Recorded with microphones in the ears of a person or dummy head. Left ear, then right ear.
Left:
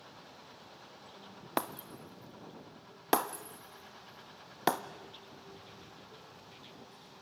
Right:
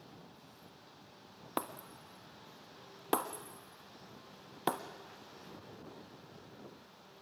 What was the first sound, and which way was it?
Breaking glass, 20° left (ahead or behind).